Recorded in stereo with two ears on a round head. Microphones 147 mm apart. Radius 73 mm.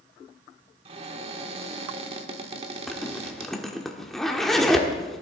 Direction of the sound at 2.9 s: Centre (ahead or behind).